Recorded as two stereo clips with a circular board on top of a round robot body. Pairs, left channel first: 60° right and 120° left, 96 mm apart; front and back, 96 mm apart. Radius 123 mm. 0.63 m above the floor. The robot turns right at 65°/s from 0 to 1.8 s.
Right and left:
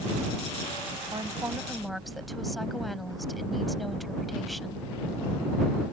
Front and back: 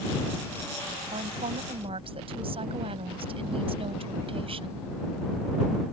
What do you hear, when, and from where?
1.1 s a woman speaking: 165° left; by 4.9 s 150° right